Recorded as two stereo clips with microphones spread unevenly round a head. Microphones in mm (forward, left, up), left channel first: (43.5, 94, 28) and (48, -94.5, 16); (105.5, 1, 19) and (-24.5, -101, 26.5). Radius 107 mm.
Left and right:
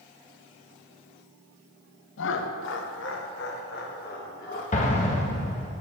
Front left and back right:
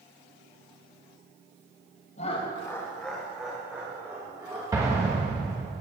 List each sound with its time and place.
2.2 s laughter: 90° left, 0.8 m; by 4.6 s 140° left, 2.5 m
4.7 s an explosion: 145° left, 1.2 m